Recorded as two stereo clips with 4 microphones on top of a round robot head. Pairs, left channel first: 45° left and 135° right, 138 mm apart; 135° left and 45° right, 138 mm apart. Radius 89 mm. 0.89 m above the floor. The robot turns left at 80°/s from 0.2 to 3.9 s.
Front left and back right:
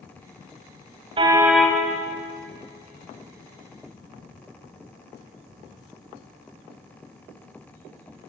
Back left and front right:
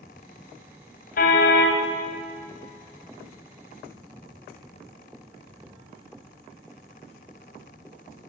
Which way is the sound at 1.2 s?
165° left.